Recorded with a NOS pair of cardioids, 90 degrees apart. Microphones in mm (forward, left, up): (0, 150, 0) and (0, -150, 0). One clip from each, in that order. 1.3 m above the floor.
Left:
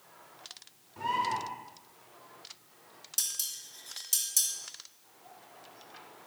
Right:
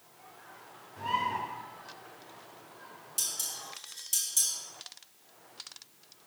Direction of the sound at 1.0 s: 30° left.